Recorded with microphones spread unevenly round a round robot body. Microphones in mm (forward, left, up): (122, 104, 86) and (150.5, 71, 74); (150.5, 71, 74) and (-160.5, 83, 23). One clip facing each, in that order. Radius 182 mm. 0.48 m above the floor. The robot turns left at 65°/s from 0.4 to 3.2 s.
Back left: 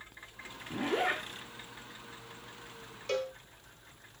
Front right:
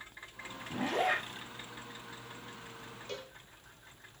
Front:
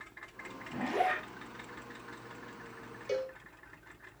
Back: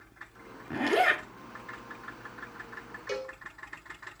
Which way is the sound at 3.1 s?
110° left.